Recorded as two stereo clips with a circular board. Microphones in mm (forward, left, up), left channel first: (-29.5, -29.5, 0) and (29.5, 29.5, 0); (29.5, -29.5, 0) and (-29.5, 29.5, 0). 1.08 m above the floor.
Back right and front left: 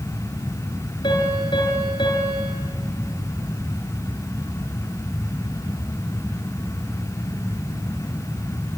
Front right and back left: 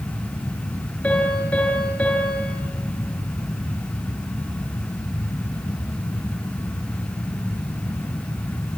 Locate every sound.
1.0 s a piano: 120° right, 6 m